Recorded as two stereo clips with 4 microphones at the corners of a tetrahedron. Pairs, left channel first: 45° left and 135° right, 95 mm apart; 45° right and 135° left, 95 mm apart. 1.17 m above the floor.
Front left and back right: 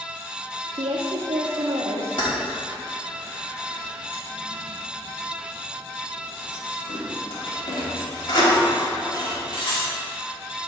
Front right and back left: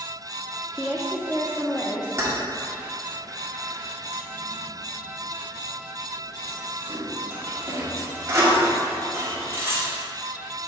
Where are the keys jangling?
75° left, 1.5 m.